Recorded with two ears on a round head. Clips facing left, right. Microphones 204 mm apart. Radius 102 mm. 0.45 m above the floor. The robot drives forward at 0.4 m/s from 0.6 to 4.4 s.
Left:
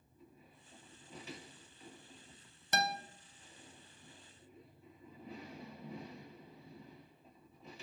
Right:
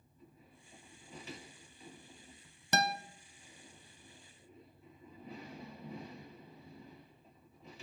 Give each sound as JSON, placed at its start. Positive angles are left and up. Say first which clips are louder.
{"t": 2.7, "sound": "a guitar", "louder": "right 3 dB", "side_deg": -60, "distance_m": 0.8}